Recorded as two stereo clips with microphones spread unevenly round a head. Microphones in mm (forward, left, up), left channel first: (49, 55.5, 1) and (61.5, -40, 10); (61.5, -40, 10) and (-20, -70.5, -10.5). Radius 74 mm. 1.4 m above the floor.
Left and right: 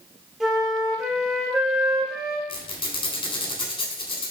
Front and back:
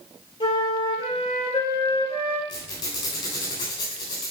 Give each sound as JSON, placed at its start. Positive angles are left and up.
{"t": 0.4, "sound": "a flute", "azimuth_deg": 5, "distance_m": 3.0}
{"t": 2.5, "sound": "a squeak", "azimuth_deg": 60, "distance_m": 3.5}